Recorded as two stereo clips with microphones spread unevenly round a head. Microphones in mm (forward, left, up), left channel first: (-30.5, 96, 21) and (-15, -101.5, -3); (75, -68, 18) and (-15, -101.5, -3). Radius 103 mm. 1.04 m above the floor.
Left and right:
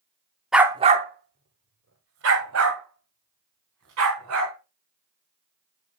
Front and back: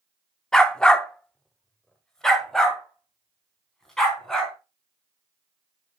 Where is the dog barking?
25° left, 0.6 m; by 4.5 s 60° right, 4 m.